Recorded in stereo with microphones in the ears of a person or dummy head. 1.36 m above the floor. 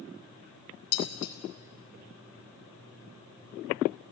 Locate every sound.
0.9 s dishes clattering: 60° left (ahead or behind), 4 m